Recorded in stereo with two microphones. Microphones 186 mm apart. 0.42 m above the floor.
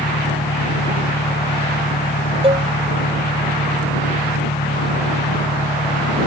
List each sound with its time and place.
0.0 s an engine running: 85° left
2.4 s a cowbell: 30° right (ahead or behind)